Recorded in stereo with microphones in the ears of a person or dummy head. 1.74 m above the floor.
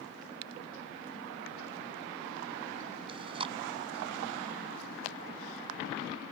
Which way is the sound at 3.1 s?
35° right (ahead or behind).